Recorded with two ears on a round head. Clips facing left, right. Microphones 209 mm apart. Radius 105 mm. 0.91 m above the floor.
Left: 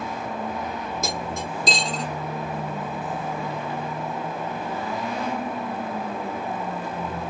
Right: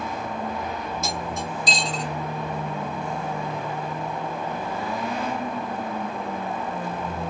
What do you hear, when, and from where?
1.0 s cutlery clinking: 70° left (ahead or behind), 1.3 m